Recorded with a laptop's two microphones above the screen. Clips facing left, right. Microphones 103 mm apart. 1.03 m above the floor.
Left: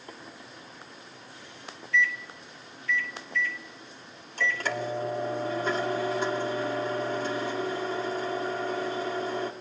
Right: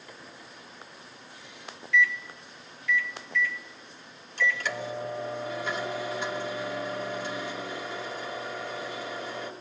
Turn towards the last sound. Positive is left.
turn(degrees=40)  # may be behind; listen again after turning